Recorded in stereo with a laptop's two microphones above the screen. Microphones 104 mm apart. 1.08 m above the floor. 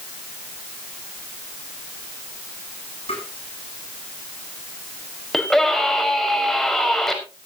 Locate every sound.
3.1 s tapping: 85° left, 9.5 m
5.3 s a scream: 5° left (ahead or behind), 5.5 m